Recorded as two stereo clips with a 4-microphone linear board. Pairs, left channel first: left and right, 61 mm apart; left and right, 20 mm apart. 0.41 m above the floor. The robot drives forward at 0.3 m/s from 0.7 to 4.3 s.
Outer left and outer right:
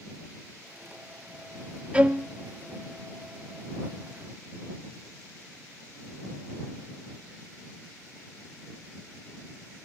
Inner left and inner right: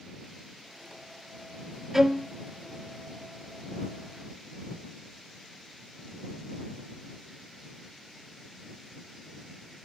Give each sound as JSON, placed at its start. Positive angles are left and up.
{"t": 1.9, "sound": "a violin", "side_deg": -20, "distance_m": 0.6}